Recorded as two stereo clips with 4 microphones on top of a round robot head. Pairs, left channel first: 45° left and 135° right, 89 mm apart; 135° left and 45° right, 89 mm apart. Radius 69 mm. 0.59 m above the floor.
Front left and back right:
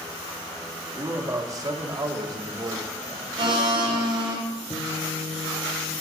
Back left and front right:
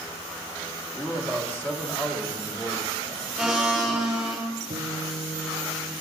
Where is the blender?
135° right, 2.5 m.